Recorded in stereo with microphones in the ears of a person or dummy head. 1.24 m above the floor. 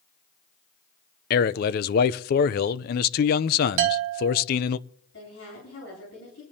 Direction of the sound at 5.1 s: 70° left (ahead or behind).